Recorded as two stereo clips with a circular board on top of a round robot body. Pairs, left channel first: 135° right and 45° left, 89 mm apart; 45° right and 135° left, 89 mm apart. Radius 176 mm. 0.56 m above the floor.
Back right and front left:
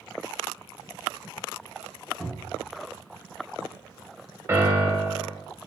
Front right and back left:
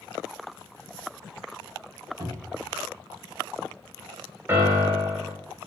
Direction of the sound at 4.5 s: 85° left.